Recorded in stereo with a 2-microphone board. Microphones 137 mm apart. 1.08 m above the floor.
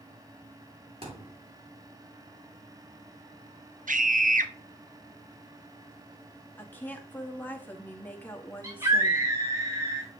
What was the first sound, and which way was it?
A thud, 45° right (ahead or behind).